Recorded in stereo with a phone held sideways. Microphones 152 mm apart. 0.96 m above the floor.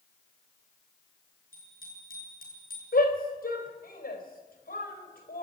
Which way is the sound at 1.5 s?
70° left (ahead or behind).